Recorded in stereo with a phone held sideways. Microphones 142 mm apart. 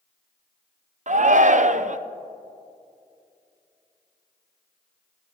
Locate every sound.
1.1 s a shout: 55° right (ahead or behind), 0.6 m